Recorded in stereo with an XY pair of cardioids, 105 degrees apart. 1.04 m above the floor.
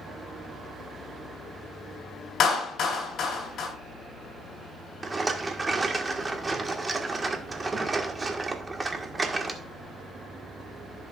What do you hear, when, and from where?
2.4 s a clap: 55° left, 4.5 m
5.0 s a rattle: 25° right, 1.5 m